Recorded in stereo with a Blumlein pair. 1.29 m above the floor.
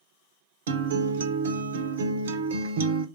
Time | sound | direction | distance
0.7 | a guitar | 60° right | 0.5 m